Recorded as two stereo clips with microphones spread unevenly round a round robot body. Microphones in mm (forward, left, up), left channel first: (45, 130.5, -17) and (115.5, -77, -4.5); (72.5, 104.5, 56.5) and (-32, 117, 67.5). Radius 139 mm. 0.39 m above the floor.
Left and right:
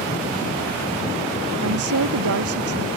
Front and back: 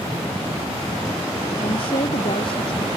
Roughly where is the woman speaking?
Ahead right.